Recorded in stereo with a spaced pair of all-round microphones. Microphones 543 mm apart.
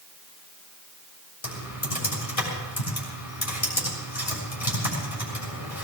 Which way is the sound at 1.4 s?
80° left.